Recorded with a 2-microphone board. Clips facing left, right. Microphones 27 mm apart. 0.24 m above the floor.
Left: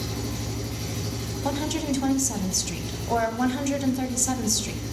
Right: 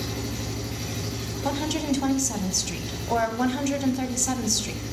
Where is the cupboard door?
I don't hear a cupboard door.